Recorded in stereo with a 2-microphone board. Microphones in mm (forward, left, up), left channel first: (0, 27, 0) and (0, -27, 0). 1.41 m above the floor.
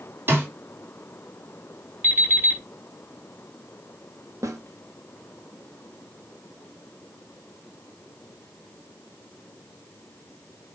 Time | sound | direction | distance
0.3 | a snare drum | 40° right (ahead or behind) | 3 m
2.0 | an alarm clock | 40° right (ahead or behind) | 5 m
4.4 | a snare drum | 75° right (ahead or behind) | 2.0 m